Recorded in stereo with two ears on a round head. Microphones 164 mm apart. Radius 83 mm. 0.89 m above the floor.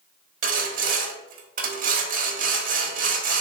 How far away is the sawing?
About 1.5 m.